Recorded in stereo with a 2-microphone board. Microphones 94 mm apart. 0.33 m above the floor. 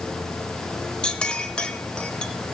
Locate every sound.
1.0 s a clink: 10° left (ahead or behind), 0.7 m